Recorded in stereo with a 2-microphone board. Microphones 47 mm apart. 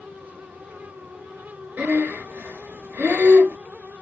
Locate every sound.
1.8 s breathing: 40° right (ahead or behind), 1.2 m